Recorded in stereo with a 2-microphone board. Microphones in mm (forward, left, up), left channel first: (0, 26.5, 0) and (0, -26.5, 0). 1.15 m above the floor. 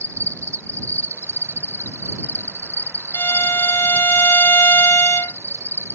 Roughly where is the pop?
I don't hear a pop.